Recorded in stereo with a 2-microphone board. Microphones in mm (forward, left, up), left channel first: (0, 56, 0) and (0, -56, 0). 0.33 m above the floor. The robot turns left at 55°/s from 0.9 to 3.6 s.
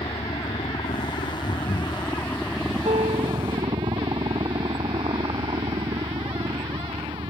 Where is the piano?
75° right; by 3.6 s 115° right.